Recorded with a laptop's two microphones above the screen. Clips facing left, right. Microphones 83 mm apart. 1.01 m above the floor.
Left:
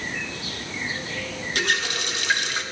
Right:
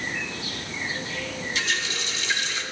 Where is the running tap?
55° left (ahead or behind), 1.0 m.